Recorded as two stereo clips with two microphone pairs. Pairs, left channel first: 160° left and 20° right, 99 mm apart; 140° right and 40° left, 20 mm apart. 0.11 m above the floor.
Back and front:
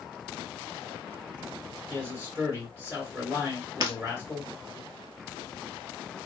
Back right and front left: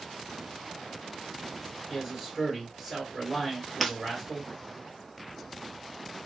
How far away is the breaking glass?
About 0.7 m.